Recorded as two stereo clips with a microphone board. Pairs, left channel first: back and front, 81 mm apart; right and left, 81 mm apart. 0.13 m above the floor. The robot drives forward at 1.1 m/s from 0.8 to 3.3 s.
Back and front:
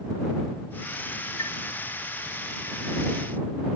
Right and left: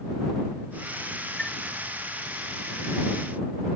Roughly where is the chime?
Behind.